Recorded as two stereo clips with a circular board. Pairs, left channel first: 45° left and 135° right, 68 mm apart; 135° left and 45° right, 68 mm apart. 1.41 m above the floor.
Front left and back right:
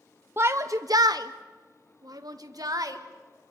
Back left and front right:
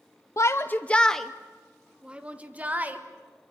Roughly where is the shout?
Behind.